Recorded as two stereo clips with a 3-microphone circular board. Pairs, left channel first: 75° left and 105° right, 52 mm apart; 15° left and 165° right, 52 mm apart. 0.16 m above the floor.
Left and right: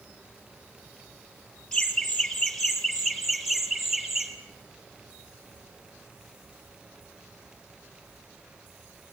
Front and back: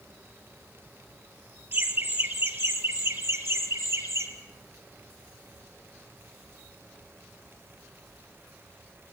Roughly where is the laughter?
Behind left.